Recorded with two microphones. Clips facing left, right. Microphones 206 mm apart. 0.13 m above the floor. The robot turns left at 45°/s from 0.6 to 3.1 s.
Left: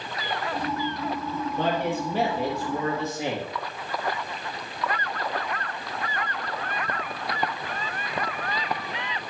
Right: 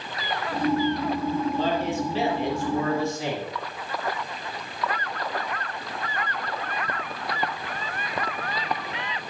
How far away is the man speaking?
About 3 m.